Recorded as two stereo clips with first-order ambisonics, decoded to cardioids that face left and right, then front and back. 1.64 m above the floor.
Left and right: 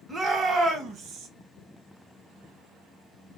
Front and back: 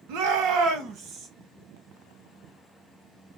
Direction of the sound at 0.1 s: 165° right.